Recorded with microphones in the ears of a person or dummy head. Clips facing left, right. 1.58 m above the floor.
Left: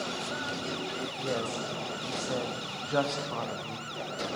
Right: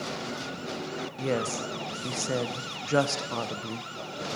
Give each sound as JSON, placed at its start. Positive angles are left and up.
{"t": 1.2, "sound": "a woman speaking", "side_deg": -40, "distance_m": 1.0}